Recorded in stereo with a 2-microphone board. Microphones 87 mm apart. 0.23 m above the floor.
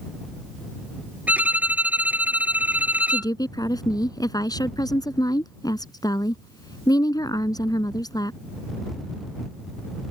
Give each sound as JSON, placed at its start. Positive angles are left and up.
{"t": 1.3, "sound": "a violin", "side_deg": -20}
{"t": 3.1, "sound": "a woman speaking", "side_deg": 50}